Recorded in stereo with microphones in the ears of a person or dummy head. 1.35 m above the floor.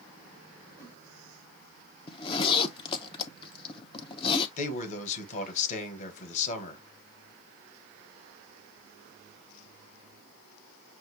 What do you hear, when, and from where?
0.8 s a whoosh: 15° left (ahead or behind), 1.7 m
2.1 s a zipper: 30° left (ahead or behind), 0.5 m
4.6 s a man speaking: 40° left (ahead or behind), 1.2 m